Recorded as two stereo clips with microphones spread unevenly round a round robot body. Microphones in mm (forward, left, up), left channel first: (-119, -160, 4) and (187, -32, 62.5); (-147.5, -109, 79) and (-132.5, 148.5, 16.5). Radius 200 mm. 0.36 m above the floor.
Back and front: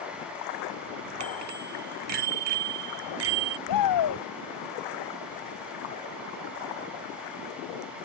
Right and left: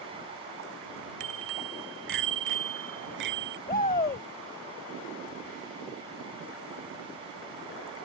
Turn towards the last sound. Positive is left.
turn(degrees=-155)